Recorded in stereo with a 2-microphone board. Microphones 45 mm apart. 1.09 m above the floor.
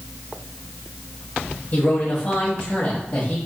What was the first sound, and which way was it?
A man speaking, 40° left (ahead or behind).